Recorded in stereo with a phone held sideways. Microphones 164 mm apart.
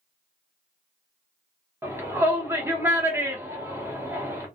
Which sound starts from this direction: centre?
A shout, at 1.8 s.